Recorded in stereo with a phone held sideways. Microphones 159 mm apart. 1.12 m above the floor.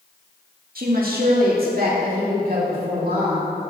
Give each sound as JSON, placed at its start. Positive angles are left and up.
{"t": 0.8, "sound": "a woman speaking", "side_deg": -60, "distance_m": 2.0}